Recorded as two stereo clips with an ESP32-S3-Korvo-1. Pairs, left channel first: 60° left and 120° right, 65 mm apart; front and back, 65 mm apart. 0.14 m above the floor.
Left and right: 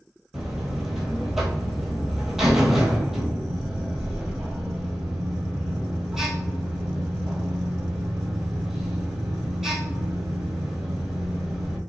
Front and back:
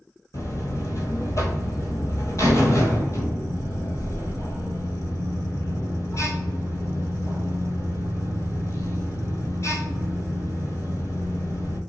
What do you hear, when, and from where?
0.3 s a buzzer: 30° right, 1.0 m